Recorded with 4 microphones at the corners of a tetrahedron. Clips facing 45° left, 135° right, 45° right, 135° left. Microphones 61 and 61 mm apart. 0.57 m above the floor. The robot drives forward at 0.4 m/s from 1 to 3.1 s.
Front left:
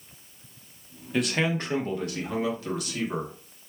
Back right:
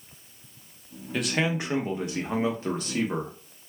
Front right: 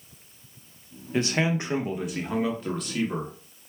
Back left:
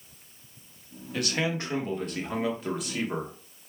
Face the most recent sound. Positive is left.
turn(degrees=-150)